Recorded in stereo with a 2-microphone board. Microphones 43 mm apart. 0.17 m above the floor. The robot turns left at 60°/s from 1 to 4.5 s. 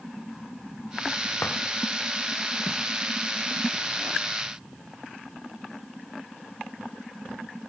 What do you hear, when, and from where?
1.4 s a drawer: 70° left (ahead or behind), 3 m; by 1.6 s 60° left (ahead or behind), 3 m